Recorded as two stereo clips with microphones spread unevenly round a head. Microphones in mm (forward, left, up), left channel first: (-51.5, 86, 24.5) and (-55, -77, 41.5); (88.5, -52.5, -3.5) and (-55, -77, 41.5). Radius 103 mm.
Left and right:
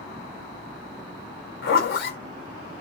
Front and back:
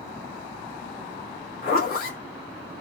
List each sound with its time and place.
1.6 s a zipper: 60° left, 1.9 m